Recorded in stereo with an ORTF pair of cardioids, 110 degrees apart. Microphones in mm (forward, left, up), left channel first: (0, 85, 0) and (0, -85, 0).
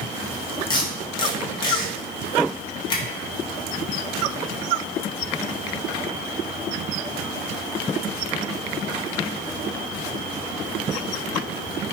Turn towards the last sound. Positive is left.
turn(degrees=25)